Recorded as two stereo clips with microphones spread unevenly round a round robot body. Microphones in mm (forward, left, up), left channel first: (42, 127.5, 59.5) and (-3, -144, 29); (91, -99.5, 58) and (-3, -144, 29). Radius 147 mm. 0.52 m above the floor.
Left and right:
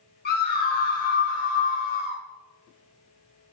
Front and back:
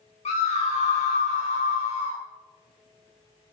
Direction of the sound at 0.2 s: 25° left.